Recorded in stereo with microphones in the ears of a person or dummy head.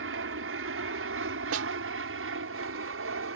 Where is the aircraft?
65° right (ahead or behind).